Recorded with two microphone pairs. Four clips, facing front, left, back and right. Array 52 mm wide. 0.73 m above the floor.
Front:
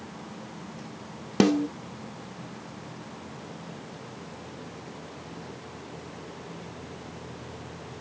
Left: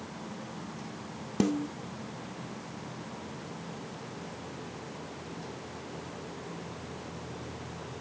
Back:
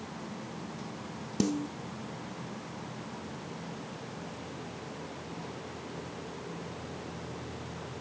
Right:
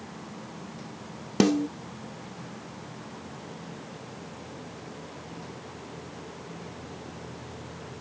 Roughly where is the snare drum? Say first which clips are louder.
Right 6 dB, front 9 dB; ahead right.